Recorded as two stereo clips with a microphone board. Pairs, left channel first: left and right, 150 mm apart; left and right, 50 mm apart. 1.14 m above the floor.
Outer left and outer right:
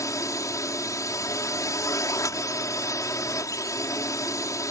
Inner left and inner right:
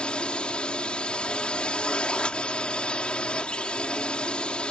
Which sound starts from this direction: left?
A drone, at 0.0 s.